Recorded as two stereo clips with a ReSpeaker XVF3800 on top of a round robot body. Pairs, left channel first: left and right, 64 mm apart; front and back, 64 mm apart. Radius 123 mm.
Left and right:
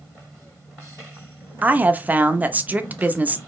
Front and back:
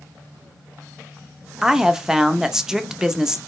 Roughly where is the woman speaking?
Right.